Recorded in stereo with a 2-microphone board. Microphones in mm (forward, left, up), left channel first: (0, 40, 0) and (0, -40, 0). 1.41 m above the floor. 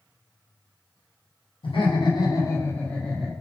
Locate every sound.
1.6 s laughter: 75° left (ahead or behind), 1.3 m; by 3.3 s centre (ahead or behind), 1.4 m